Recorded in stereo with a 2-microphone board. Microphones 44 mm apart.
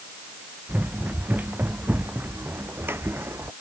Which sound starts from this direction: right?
Running footsteps, at 0.7 s.